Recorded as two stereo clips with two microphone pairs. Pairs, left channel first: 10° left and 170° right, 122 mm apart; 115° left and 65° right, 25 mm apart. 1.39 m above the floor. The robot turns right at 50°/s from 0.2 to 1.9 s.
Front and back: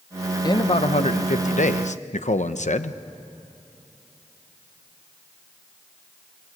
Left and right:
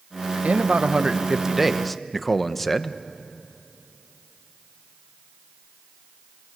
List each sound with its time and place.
0.4 s a man speaking: 45° right, 0.9 m; by 3.0 s 30° left, 0.9 m